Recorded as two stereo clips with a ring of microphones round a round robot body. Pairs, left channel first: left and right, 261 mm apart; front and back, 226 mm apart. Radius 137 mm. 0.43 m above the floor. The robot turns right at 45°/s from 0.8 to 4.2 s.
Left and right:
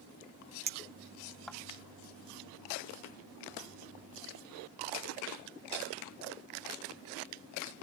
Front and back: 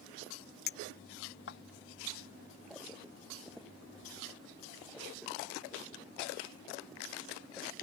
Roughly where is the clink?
Ahead right.